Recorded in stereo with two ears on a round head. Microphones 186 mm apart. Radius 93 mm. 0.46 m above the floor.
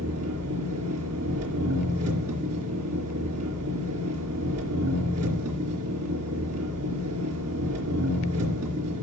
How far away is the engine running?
About 3.5 m.